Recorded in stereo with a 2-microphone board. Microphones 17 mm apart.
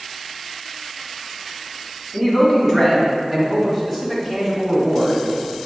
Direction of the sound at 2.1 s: 5° left (ahead or behind).